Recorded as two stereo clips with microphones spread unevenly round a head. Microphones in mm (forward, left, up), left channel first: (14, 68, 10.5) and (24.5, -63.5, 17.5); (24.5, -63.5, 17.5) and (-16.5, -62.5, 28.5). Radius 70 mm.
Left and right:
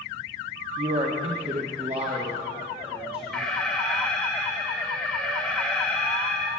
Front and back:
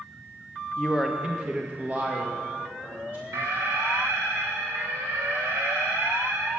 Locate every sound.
0.8 s a man speaking: 70° right, 0.9 m; by 3.5 s 140° right, 2.5 m
3.3 s an alarm: straight behind, 2 m